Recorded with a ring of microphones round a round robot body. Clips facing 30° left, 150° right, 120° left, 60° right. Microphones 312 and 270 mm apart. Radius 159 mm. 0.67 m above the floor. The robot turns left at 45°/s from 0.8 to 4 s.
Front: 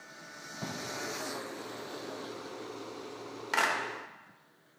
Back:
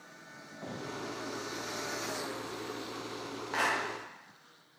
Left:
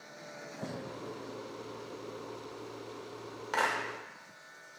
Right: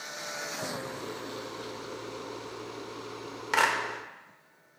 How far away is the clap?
About 1.6 m.